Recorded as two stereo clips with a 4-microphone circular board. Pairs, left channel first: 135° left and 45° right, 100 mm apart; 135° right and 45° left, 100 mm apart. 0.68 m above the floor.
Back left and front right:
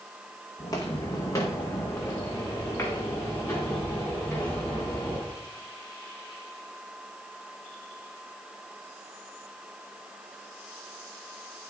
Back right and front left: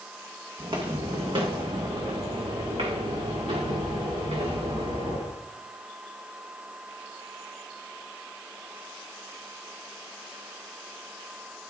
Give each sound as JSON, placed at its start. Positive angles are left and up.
{"t": 0.6, "sound": "footsteps", "azimuth_deg": 85, "distance_m": 2.0}